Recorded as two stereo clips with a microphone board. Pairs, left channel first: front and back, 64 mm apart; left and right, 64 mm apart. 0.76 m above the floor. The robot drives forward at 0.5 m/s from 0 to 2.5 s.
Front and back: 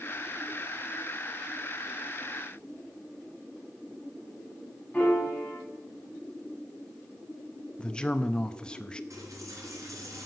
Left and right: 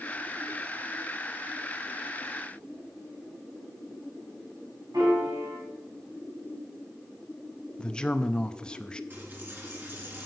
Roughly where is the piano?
Right.